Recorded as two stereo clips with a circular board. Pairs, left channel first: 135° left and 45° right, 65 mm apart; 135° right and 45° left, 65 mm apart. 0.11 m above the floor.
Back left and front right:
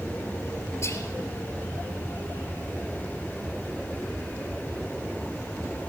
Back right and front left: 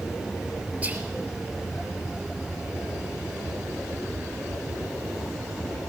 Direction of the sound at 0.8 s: 105° left.